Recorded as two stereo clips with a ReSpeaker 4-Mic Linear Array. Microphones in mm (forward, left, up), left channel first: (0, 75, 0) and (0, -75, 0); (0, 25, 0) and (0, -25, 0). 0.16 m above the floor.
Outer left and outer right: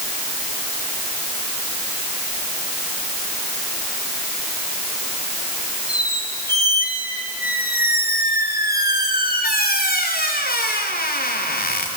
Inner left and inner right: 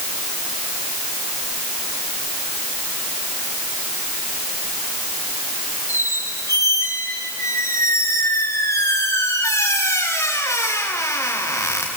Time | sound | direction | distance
5.9 | a squeak | 80° left | 4 m